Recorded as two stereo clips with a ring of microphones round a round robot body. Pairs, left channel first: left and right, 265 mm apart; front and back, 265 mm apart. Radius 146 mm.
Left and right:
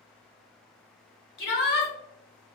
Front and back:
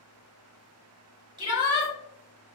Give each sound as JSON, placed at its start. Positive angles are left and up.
{"t": 1.4, "sound": "a shout", "azimuth_deg": 115, "distance_m": 1.7}